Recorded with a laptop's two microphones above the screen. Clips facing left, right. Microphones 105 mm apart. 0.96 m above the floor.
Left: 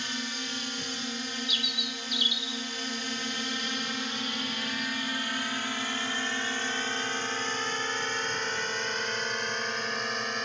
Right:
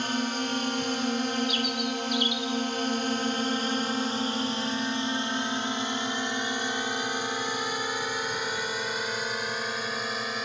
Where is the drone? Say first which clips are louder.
Right 8 dB; 50° right (ahead or behind); by 10.5 s 5° right (ahead or behind).